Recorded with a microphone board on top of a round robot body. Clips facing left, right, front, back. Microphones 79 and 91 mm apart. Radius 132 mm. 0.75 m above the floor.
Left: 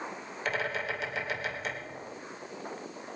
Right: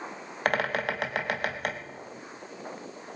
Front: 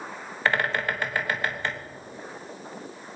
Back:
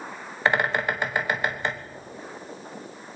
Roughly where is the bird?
Right.